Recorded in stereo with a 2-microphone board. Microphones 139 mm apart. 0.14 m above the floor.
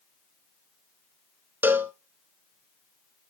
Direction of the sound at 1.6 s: 15° right (ahead or behind).